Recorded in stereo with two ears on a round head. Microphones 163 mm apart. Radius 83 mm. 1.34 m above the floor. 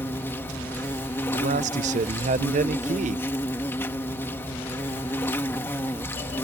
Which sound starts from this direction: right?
A man speaking, at 1.3 s.